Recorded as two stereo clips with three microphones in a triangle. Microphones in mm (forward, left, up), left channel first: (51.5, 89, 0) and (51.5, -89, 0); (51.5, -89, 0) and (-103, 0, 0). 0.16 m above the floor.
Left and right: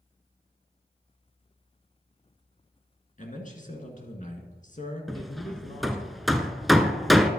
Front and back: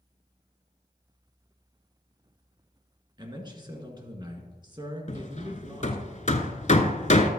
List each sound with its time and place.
3.2 s a man speaking: 95° left, 1.8 m
5.1 s hammering: straight ahead, 0.7 m